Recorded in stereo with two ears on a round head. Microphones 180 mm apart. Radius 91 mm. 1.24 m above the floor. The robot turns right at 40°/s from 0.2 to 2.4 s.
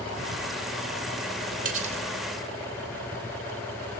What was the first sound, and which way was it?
Cutlery clinking, 45° right (ahead or behind).